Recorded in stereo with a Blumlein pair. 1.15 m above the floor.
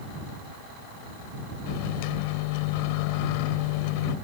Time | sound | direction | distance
1.7 | a microwave | 45° left | ?